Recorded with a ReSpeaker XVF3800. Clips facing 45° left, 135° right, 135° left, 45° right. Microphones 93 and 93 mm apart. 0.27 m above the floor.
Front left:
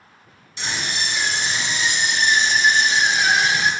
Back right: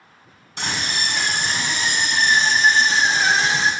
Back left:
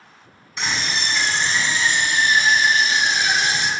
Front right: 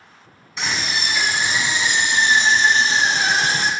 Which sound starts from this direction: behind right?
A scream, at 0.6 s.